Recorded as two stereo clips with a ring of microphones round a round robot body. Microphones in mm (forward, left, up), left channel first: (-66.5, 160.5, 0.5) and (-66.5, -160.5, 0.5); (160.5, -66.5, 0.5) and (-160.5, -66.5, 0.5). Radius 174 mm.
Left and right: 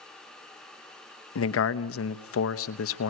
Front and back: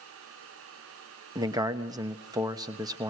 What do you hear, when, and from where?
1.4 s a man speaking: 105° left, 1.0 m